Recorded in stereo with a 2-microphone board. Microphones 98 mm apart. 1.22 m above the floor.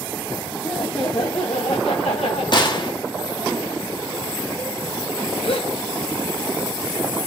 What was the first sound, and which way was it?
Laughter, 30° left (ahead or behind).